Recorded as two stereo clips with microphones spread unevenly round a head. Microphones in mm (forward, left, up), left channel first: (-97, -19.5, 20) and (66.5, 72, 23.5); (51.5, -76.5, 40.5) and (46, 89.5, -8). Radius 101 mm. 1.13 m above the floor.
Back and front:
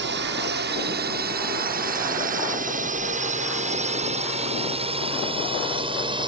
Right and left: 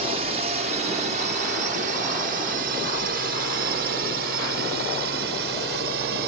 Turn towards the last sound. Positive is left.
turn(degrees=95)